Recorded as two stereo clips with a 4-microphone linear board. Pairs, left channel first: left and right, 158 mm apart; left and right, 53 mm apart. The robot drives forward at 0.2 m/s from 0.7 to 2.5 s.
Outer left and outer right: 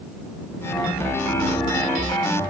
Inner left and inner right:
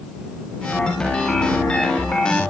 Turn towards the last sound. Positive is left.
No sound to turn to.